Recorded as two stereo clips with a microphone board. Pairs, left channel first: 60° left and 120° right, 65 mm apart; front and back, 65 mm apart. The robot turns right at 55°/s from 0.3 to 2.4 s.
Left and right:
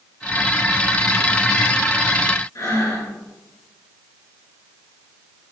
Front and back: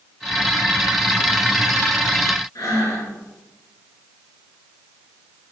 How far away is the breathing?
About 3.5 m.